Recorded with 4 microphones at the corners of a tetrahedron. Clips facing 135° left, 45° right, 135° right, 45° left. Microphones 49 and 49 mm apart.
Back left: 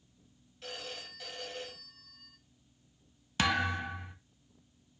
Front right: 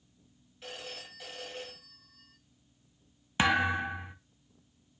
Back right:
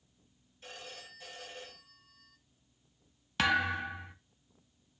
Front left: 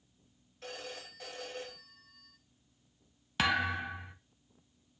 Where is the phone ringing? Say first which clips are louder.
Even, front left 4 dB; 35° left, 1.9 m.